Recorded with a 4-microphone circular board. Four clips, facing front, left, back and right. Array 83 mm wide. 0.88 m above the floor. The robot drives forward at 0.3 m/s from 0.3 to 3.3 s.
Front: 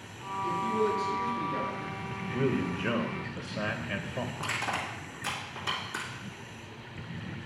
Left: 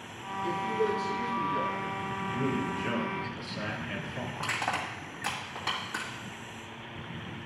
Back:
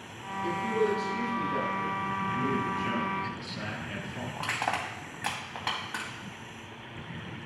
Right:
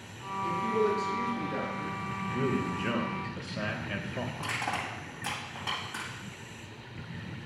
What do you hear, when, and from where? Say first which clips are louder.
0.4 s a man speaking: right 1 dB, even; 120° right, 4 m; by 2.0 s 125° right, 4.5 m
2.3 s a man speaking: right 1 dB, front 4 dB; 15° right, 0.8 m; by 4.3 s 30° right, 0.6 m
4.4 s crushing: left 4 dB, back 6 dB; 170° left, 1.8 m